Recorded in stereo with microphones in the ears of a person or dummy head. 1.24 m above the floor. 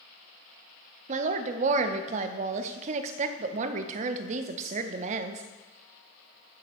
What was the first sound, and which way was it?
A woman speaking, 40° right (ahead or behind).